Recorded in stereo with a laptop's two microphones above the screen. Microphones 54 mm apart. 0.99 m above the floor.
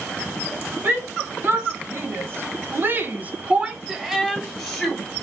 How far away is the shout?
About 1.4 m.